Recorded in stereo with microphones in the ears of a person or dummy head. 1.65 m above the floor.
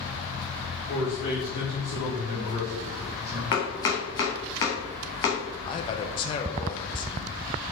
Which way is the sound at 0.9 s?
60° left (ahead or behind).